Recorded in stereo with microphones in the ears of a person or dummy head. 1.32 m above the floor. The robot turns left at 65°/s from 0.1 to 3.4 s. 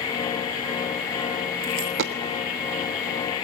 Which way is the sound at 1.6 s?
50° right (ahead or behind).